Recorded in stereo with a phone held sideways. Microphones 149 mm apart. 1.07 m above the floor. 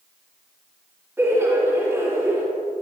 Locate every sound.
1.2 s laughter: 15° right (ahead or behind), 2.5 m